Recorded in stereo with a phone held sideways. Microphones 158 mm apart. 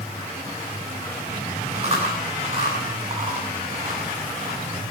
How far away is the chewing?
About 9 m.